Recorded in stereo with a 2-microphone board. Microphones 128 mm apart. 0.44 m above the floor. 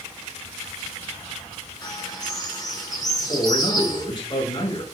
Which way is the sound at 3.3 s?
35° left (ahead or behind).